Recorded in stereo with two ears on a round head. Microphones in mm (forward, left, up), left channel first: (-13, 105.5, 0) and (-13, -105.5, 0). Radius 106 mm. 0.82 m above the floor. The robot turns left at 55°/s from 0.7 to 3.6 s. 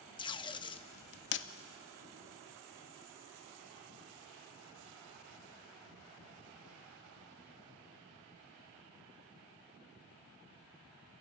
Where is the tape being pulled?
20° left (ahead or behind), 0.8 m; by 1.5 s 55° left (ahead or behind), 0.8 m.